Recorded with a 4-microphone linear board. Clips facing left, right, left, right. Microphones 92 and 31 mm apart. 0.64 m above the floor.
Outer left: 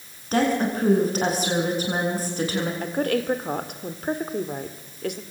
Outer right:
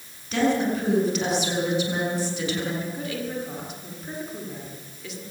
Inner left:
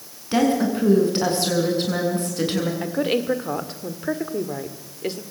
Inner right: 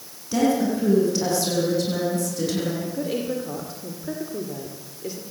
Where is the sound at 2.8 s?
60° left (ahead or behind), 2 m.